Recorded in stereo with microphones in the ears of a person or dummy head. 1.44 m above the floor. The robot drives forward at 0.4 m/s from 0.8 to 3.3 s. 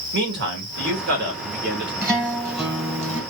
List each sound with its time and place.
0.1 s a man speaking: 60° right (ahead or behind), 2.0 m; by 1.9 s 50° right (ahead or behind), 2 m
2.0 s a guitar: 15° right (ahead or behind), 2 m; by 3.2 s 20° right (ahead or behind), 1.7 m